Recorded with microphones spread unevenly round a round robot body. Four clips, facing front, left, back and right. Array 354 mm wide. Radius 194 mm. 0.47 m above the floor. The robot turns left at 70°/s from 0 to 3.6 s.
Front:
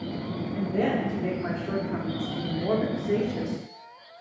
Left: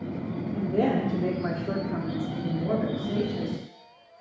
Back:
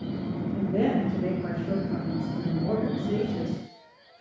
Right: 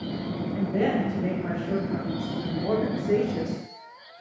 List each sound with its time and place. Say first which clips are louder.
0.5 s a woman speaking: even, back 1 dB; 130° left, 1.0 m; by 4.2 s 85° right, 1.0 m